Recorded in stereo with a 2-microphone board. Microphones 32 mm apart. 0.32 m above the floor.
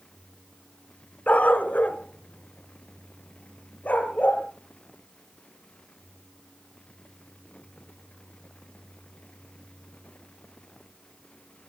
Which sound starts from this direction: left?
A dog barking, at 1.3 s.